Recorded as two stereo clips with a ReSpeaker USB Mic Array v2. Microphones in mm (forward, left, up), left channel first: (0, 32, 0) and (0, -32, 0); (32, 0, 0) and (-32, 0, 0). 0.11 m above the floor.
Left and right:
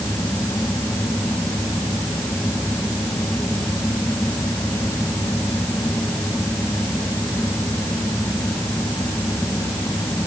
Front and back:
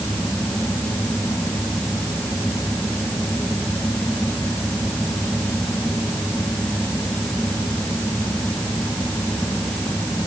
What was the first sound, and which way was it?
Only background noise.